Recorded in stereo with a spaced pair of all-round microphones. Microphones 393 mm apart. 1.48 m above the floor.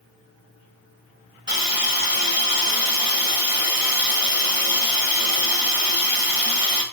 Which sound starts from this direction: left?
A hiss, at 1.5 s.